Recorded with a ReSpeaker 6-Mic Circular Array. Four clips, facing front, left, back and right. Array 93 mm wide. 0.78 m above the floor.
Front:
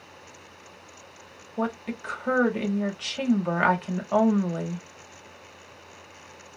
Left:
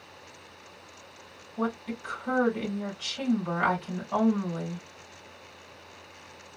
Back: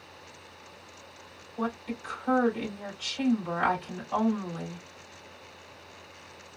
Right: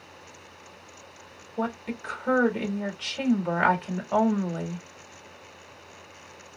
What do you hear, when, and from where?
1.6 s a woman speaking: 35° right, 1.3 m